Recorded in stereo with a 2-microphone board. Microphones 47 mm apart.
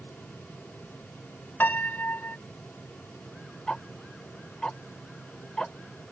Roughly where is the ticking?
Centre.